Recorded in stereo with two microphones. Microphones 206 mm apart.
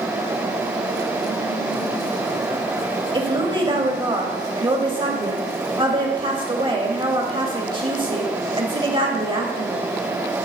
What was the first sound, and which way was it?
A woman speaking, 25° right (ahead or behind).